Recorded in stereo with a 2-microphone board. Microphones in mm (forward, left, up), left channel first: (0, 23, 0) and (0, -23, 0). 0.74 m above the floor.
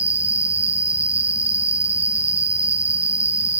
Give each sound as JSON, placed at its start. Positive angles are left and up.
{"t": 0.0, "sound": "an insect", "side_deg": 75, "distance_m": 2.0}